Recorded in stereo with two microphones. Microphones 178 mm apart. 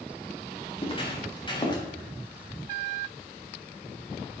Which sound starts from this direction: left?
Footsteps, at 0.8 s.